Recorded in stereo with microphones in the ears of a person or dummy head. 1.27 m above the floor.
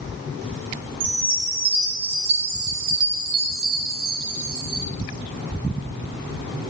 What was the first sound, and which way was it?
A chime, 25° right (ahead or behind).